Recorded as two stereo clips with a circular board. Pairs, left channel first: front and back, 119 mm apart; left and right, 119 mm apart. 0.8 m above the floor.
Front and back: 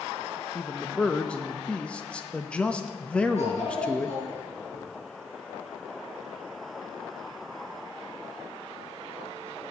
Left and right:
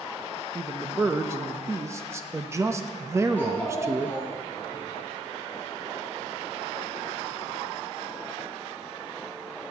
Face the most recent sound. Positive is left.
turn(degrees=15)